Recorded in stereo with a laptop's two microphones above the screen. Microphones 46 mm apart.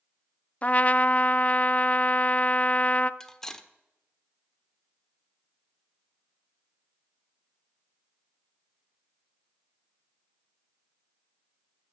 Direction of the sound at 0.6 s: 35° left (ahead or behind).